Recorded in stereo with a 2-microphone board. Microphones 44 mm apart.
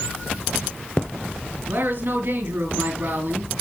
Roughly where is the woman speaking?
Right.